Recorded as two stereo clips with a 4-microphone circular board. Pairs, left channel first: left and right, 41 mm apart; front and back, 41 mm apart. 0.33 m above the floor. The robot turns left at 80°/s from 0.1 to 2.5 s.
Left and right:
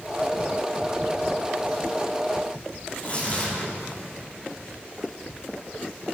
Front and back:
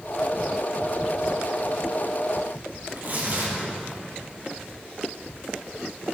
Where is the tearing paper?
145° left, 5.5 m.